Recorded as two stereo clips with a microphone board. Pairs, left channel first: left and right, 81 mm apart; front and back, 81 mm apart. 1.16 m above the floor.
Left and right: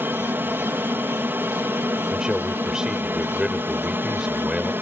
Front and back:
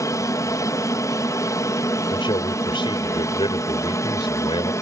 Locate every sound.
0.0 s an aircraft: 35° right
2.1 s a man speaking: 10° right